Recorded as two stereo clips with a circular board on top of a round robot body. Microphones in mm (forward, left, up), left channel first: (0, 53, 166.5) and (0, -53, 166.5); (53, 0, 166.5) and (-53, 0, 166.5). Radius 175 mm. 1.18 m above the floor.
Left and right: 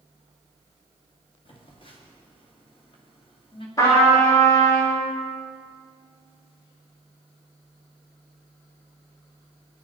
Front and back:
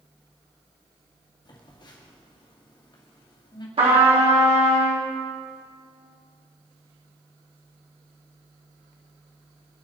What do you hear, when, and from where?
1.4 s a phone buzzing: 50° left, 2.5 m
3.8 s a trumpet: 150° left, 4 m